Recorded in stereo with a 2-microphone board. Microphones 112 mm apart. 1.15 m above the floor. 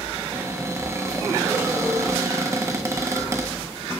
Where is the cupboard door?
25° right (ahead or behind), 0.8 m.